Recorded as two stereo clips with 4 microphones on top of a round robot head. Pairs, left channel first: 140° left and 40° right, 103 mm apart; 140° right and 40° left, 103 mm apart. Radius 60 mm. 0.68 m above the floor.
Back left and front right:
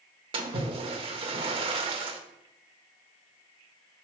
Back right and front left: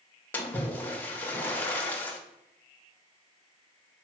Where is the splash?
65° right, 1.1 m.